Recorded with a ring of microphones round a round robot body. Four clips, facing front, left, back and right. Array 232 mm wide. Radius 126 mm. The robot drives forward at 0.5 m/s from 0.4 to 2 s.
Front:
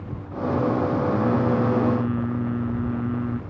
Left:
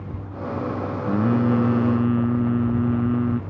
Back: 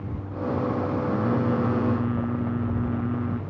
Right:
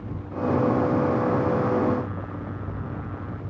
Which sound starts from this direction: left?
Singing, at 1.1 s.